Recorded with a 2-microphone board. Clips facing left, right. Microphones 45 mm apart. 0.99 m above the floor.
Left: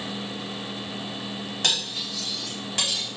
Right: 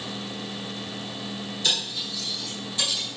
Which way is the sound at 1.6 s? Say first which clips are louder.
Left 1 dB; 75° left (ahead or behind).